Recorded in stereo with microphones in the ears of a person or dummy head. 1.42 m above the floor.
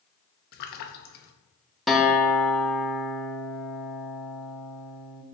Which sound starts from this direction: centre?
A guitar, at 1.9 s.